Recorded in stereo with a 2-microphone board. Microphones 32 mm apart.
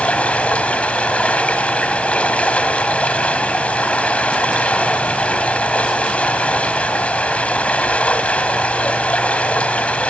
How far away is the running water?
About 2.5 m.